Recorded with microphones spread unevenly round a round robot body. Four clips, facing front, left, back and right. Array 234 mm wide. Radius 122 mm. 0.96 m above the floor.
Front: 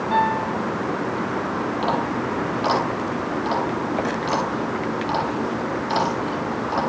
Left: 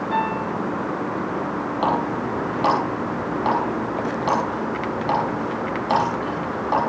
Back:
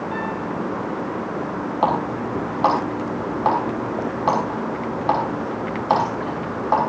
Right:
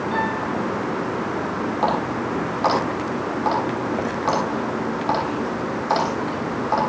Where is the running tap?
175° left, 5.5 m.